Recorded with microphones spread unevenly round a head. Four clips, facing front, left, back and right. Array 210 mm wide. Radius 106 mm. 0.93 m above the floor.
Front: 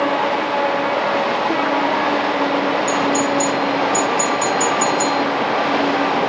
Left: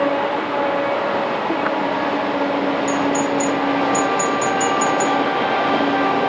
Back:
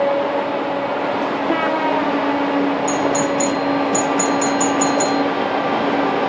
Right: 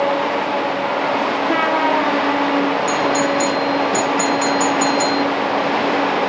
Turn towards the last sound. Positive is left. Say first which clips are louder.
# right 1 dB, even
turn(degrees=-145)